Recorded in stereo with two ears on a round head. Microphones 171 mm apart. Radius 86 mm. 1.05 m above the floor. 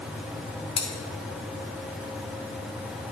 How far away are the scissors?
About 1.5 m.